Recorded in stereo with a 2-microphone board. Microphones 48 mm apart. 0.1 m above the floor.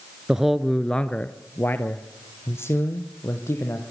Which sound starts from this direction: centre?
A man speaking, at 0.3 s.